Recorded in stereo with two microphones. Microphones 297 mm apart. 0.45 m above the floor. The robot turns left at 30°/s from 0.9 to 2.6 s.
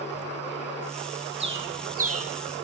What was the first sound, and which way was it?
A bird, 40° right (ahead or behind).